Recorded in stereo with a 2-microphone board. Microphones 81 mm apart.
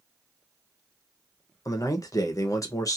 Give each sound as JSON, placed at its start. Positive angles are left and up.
{"t": 1.6, "sound": "a man speaking", "side_deg": 45, "distance_m": 0.7}